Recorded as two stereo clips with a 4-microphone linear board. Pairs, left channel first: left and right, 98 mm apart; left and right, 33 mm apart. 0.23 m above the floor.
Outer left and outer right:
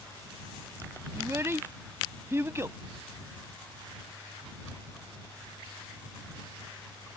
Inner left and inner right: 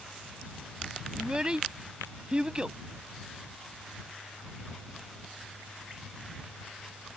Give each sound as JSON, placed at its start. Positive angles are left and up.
{"t": 1.1, "sound": "a child speaking", "side_deg": -25}